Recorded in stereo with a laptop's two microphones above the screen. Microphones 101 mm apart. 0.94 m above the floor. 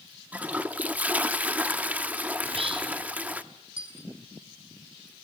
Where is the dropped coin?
65° right (ahead or behind), 2 m.